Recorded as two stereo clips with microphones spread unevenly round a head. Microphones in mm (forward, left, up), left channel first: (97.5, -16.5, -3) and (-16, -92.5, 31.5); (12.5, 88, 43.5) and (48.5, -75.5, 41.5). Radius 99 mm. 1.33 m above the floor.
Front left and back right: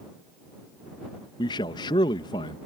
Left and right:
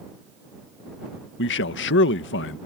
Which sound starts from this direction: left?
A man speaking, at 1.4 s.